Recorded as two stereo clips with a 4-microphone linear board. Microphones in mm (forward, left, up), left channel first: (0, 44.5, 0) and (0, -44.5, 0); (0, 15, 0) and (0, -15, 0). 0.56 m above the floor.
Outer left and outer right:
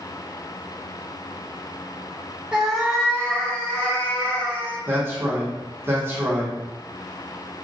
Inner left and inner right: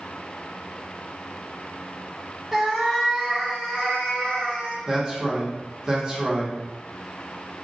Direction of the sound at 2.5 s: 10° right (ahead or behind).